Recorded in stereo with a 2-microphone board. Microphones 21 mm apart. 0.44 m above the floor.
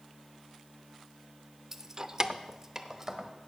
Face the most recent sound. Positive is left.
turn(degrees=-20)  # may be behind; listen again after turning